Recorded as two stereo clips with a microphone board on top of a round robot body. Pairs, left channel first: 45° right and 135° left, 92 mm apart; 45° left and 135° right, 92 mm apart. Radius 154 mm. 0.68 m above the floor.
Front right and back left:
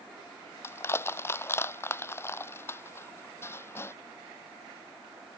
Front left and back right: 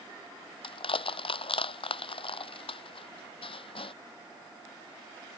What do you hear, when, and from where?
0.6 s crushing: 20° left